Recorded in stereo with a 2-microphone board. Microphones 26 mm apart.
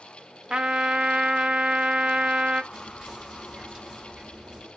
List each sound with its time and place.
0.5 s a trumpet: 40° right (ahead or behind), 1.0 m
2.7 s whispering: 25° right (ahead or behind), 7.5 m